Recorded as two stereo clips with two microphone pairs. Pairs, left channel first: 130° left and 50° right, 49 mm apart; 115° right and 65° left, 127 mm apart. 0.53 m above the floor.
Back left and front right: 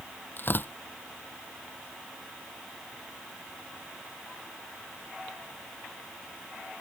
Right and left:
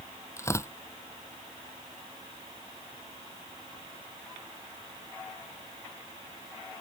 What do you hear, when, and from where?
0.4 s tearing paper: 175° left